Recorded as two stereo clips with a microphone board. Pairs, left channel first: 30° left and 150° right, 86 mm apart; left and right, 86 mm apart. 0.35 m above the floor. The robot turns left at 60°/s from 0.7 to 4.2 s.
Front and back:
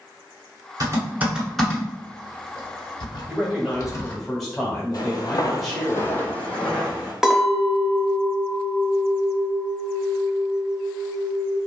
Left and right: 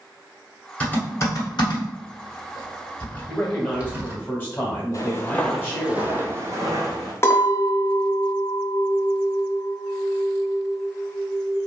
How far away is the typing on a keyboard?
About 1.0 m.